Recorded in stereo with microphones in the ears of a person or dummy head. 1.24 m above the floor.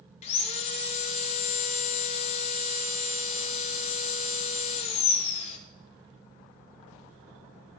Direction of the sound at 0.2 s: 45° left (ahead or behind).